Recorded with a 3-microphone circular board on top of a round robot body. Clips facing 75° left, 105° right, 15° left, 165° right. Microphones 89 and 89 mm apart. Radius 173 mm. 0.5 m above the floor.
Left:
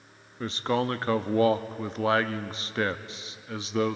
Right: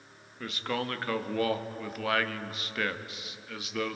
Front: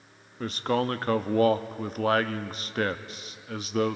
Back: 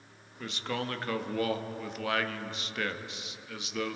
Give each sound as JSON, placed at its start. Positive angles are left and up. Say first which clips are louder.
{"t": 0.4, "sound": "a man speaking", "louder": "left 6 dB, front 8 dB", "azimuth_deg": 30, "distance_m": 1.0}